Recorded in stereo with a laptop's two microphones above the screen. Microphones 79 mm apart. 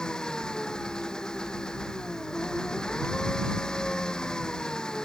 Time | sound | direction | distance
0.0 | an engine running | 10° left (ahead or behind) | ?